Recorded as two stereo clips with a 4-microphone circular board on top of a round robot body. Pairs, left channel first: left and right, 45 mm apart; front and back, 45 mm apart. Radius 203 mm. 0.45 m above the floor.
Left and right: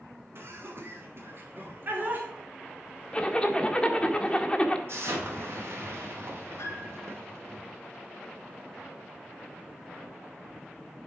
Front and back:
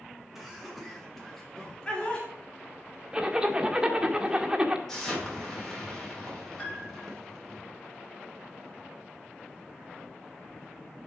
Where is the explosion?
80° right, 3 m.